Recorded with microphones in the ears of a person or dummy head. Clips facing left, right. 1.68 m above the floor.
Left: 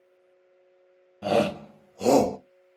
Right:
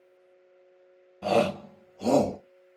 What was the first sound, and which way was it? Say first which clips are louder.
A shout: left 1 dB; centre (ahead or behind).